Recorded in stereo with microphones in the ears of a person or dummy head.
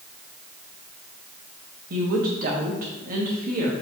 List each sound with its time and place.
1.9 s a woman speaking: 50° right (ahead or behind), 1.7 m